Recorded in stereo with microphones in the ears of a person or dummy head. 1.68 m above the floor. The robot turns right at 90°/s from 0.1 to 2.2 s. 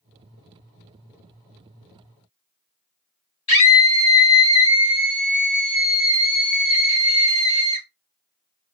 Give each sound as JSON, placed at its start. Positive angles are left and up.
{"t": 3.5, "sound": "a scream", "side_deg": 25, "distance_m": 0.6}